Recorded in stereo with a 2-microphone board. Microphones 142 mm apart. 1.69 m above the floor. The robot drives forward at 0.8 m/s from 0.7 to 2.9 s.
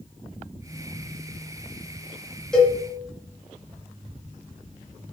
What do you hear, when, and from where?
2.5 s a cowbell: 5° left (ahead or behind), 4 m